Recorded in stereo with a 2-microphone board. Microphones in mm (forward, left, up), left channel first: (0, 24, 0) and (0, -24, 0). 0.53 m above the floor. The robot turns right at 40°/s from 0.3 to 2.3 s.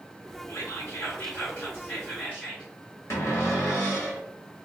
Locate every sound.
0.5 s whispering: 70° left, 1.9 m; by 2.7 s 145° left, 1.9 m
3.1 s a cupboard door: 75° left (ahead or behind), 1.3 m